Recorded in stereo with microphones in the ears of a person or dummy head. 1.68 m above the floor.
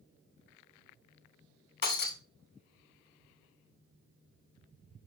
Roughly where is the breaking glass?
Left.